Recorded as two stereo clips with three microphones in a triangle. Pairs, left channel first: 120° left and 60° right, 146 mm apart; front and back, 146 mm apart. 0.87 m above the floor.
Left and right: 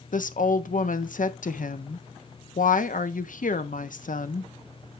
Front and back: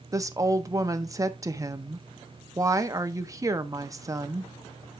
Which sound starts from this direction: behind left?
A woman speaking, at 0.1 s.